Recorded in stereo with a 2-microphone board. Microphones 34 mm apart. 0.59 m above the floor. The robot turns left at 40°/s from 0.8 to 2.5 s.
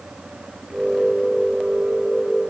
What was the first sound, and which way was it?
Only background noise.